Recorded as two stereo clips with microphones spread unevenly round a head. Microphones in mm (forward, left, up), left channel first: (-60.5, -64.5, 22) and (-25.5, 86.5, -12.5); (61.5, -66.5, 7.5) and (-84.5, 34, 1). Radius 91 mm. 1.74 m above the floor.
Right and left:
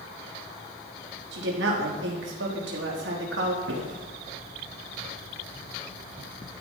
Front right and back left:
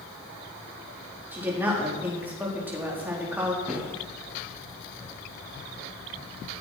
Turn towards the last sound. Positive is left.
turn(degrees=65)